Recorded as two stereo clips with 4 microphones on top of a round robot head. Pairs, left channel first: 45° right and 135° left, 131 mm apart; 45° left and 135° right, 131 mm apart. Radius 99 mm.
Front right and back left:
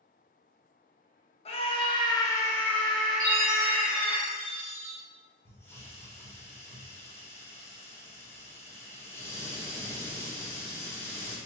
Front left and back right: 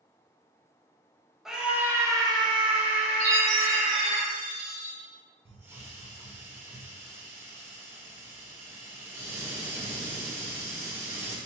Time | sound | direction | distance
1.4 | a scream | 50° right | 1.0 m
3.2 | a chime | 125° right | 1.9 m
5.5 | a hiss | 90° right | 1.3 m